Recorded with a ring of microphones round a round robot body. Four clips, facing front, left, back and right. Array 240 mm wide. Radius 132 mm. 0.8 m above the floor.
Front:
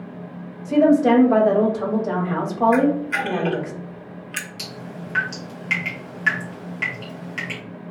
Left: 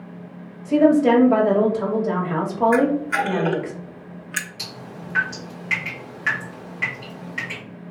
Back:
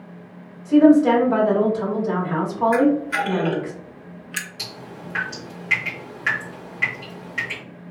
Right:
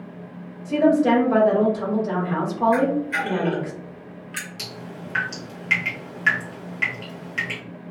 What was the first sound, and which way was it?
A woman speaking, 20° left.